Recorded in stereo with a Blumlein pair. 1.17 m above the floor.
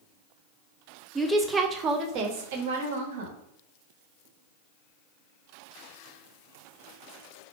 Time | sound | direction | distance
1.1 | a woman speaking | straight ahead | 0.8 m